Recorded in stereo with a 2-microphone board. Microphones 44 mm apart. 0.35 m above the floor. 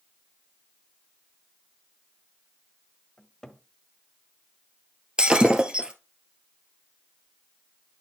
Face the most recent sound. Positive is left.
turn(degrees=-25)  # may be behind; listen again after turning